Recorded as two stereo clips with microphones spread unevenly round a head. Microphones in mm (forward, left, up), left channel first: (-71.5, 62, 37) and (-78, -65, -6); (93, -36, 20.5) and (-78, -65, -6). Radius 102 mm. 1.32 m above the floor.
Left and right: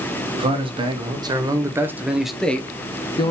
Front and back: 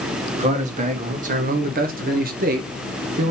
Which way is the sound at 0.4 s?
125° right.